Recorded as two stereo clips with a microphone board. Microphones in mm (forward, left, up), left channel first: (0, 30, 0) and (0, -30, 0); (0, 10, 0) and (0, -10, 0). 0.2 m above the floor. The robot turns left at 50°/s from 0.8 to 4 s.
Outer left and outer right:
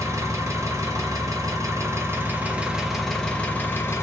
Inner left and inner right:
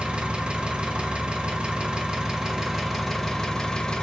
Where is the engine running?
70° right, 0.8 m; by 4.0 s 130° left, 0.8 m.